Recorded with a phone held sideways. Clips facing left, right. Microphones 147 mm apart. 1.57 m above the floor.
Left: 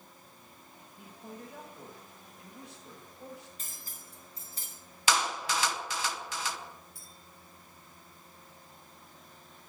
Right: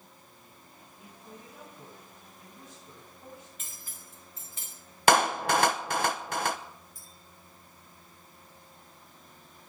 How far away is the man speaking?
About 8 m.